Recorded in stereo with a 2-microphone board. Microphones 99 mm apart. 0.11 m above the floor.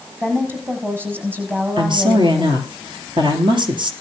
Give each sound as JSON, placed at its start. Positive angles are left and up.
{"t": 0.2, "sound": "a woman speaking", "side_deg": -20, "distance_m": 5.0}
{"t": 1.8, "sound": "a woman speaking", "side_deg": -50, "distance_m": 3.0}